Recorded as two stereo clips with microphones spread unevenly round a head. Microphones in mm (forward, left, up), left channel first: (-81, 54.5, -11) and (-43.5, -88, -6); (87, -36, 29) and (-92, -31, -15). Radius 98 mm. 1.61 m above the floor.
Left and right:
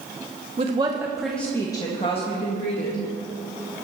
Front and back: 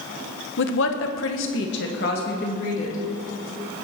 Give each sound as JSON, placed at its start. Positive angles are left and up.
{"t": 0.6, "sound": "a woman speaking", "azimuth_deg": -15, "distance_m": 1.4}